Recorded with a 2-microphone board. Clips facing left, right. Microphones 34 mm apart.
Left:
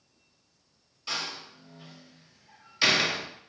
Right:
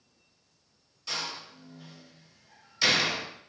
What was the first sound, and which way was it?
A door slam, 25° left (ahead or behind).